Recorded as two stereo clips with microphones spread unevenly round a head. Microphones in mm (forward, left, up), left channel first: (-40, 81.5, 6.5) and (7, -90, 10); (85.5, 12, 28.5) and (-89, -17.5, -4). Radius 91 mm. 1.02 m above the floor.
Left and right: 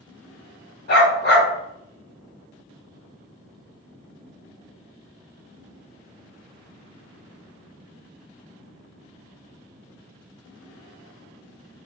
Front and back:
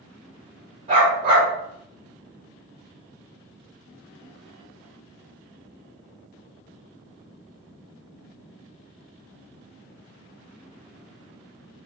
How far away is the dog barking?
About 1.3 m.